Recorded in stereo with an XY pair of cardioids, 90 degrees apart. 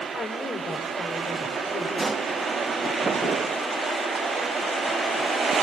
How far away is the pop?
About 3 m.